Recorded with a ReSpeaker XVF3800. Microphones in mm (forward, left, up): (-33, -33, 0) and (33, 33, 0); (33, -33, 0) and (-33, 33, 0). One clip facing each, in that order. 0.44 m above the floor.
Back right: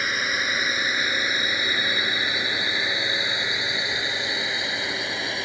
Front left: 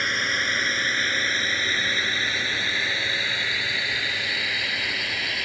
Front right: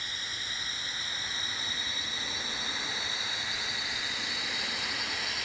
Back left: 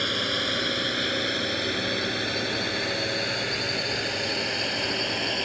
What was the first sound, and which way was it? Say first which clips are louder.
A drone: even, back left 14 dB; 140° left.